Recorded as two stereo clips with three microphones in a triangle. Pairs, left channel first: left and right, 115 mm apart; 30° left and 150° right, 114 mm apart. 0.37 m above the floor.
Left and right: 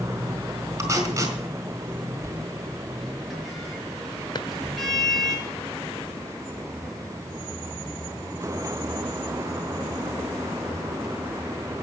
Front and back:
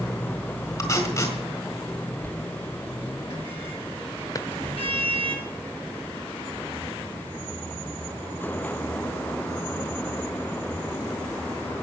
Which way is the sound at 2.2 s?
Straight ahead.